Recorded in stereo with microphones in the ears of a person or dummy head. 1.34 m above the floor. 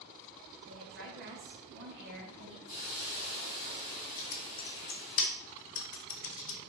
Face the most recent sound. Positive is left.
turn(degrees=60)  # may be behind; listen again after turning